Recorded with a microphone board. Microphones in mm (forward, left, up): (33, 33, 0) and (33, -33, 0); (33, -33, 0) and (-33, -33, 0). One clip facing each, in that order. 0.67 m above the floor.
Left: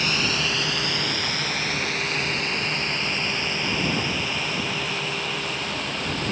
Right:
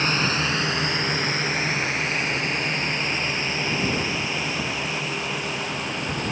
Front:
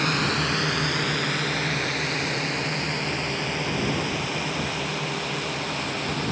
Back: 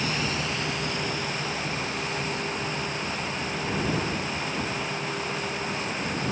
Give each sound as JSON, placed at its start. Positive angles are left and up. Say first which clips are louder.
{"t": 0.0, "sound": "a drone", "louder": "right 2 dB, front 4 dB", "azimuth_deg": -30}